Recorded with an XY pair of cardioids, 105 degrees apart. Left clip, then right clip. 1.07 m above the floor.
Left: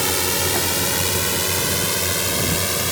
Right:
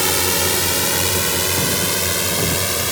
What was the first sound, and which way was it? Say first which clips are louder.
A drone: right 3 dB; 20° right.